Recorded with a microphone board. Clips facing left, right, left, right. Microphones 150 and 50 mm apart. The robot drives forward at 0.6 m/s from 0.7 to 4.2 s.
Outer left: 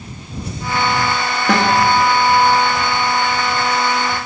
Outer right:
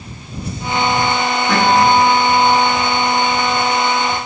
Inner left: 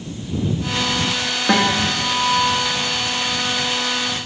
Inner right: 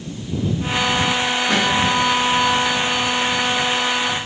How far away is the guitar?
About 3 m.